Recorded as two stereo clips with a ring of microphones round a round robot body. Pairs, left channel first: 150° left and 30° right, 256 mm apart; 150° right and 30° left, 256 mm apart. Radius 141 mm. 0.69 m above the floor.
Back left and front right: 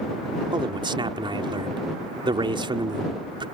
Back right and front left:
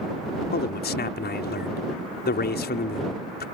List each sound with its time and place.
0.5 s a man speaking: 100° right